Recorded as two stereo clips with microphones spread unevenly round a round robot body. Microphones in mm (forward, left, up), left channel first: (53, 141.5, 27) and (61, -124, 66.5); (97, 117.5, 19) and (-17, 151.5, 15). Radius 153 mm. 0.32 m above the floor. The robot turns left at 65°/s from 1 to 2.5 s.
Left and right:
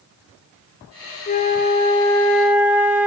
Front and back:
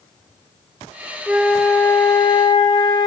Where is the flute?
85° left, 0.6 m; by 3.1 s 5° left, 0.6 m.